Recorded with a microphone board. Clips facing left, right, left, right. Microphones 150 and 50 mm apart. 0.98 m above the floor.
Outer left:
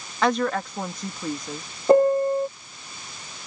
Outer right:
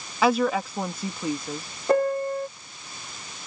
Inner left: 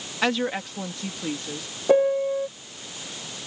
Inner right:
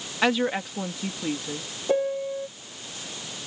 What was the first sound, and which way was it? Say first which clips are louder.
A woman speaking: outer right 1 dB, inner right 1 dB; 5° right (ahead or behind).